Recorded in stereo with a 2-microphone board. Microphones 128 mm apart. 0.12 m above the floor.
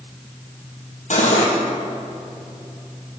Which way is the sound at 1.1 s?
70° left (ahead or behind).